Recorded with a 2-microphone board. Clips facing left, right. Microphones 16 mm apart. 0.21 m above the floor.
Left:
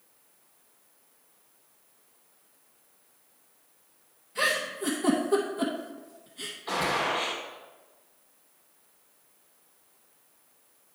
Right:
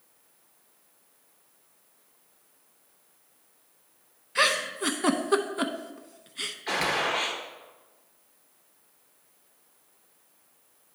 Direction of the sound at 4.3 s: 45° right (ahead or behind).